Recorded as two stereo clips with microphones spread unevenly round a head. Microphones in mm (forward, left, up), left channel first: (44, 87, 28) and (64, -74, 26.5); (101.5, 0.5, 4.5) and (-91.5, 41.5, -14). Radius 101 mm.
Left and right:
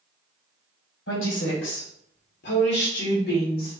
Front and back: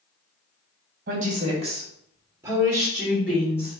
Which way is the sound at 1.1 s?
120° left.